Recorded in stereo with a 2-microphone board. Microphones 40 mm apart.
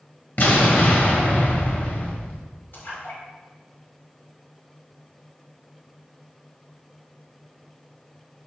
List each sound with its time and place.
0.4 s an explosion: 50° left (ahead or behind), 1.6 m
2.7 s a splash: 60° left (ahead or behind), 3 m